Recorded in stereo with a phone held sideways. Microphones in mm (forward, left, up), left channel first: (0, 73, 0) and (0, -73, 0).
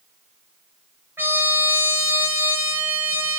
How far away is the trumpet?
About 3.5 m.